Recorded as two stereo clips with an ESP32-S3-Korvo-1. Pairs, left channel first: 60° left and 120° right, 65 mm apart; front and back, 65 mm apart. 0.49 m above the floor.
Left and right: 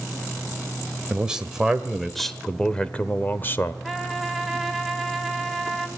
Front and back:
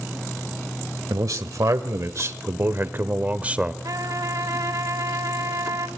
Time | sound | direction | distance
1.1 | a man speaking | 165° left | 1.8 m
3.8 | a trumpet | 150° left | 2.5 m